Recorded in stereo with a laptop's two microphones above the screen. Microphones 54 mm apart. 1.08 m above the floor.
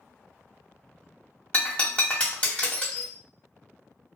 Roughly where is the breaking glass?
Left.